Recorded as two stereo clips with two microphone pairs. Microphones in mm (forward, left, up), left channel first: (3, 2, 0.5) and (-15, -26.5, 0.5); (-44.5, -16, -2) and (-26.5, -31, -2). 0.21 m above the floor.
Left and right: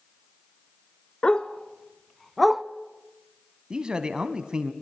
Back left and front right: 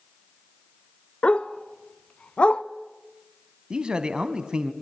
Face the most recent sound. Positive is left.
turn(degrees=-75)